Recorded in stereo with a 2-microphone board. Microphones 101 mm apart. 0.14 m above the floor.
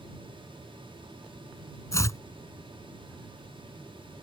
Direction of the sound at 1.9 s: 30° left (ahead or behind).